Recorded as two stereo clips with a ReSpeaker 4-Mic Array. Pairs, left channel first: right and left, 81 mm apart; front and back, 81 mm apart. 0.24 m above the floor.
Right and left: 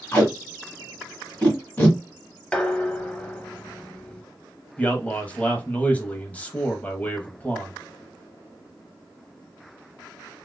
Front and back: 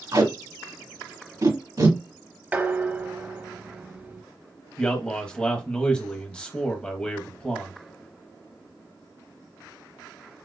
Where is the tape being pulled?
155° right, 2 m.